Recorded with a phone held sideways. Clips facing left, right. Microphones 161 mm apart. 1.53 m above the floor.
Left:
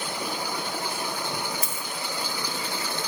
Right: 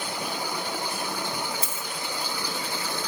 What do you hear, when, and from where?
1.6 s a dropped coin: 25° right (ahead or behind), 1.4 m